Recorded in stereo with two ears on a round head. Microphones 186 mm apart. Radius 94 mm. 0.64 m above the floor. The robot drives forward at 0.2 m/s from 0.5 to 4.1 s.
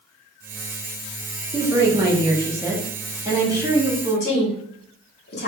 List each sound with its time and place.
1.5 s a woman speaking: 15° right (ahead or behind), 0.9 m
4.0 s a woman speaking: 50° left (ahead or behind), 1.5 m